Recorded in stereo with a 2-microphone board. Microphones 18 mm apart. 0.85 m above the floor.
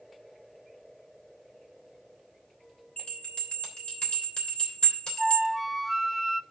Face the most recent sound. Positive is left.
turn(degrees=5)  # may be behind; listen again after turning